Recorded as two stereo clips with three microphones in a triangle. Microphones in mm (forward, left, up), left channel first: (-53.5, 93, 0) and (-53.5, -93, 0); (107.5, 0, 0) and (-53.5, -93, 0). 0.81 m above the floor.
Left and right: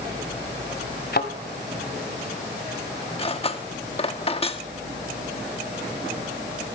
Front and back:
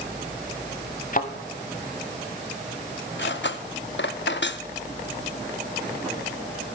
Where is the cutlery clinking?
35° left, 0.8 m.